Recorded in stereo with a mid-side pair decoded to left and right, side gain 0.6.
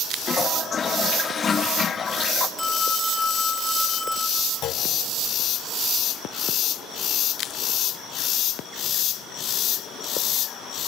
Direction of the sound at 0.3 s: 30° left.